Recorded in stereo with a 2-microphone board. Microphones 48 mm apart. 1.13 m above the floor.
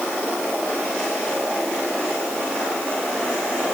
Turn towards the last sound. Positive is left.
No sound to turn to.